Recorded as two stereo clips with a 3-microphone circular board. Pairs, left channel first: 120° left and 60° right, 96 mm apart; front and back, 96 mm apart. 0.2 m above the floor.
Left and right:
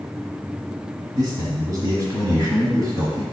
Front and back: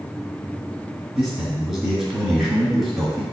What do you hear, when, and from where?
1.1 s a man speaking: 90° right, 1.6 m